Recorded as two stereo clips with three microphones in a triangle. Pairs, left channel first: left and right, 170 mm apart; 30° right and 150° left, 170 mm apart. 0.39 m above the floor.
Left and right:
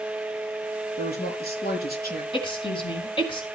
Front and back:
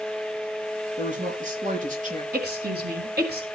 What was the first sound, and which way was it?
A woman speaking, 110° left.